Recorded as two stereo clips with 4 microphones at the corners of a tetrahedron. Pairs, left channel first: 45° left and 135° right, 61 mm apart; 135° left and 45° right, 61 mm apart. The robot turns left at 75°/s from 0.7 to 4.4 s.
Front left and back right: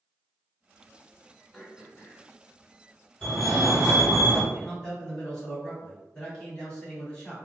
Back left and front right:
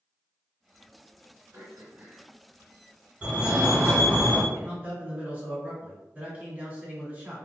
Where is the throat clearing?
40° right, 1.5 m; by 2.3 s 95° right, 1.5 m.